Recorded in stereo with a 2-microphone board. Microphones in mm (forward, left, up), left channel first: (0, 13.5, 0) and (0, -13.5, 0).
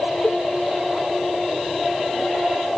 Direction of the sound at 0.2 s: 80° left.